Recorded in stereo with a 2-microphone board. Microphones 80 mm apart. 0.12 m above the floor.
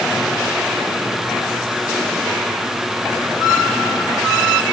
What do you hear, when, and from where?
Only background noise.